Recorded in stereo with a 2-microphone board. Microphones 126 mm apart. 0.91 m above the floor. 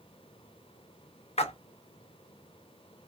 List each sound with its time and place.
1.4 s a splash: 55° left (ahead or behind), 0.5 m